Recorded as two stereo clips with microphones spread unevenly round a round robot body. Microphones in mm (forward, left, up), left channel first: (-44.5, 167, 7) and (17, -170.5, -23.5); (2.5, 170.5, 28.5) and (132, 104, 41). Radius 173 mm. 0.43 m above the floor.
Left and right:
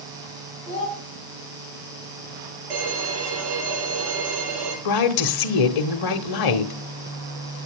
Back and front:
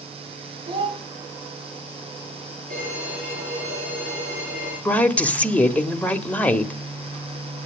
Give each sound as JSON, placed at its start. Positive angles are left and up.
{"t": 0.7, "sound": "a child speaking", "azimuth_deg": 30, "distance_m": 3.0}
{"t": 2.7, "sound": "a violin", "azimuth_deg": -90, "distance_m": 8.5}
{"t": 4.8, "sound": "a woman speaking", "azimuth_deg": 75, "distance_m": 1.5}